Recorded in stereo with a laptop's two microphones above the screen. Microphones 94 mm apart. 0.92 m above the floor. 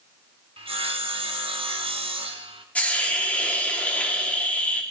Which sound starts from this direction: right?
Sawing, at 0.6 s.